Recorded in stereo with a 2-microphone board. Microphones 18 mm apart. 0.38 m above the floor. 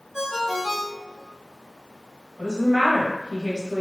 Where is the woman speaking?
35° right (ahead or behind), 1.6 m.